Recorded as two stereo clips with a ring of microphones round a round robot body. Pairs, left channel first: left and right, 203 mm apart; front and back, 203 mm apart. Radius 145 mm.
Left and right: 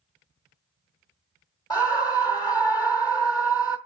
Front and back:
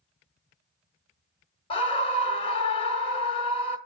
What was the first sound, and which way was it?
A scream, 40° left.